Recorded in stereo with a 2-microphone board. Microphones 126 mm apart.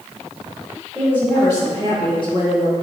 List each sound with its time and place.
0.9 s a woman speaking: 15° left (ahead or behind), 1.2 m; by 2.7 s 45° left (ahead or behind), 1.1 m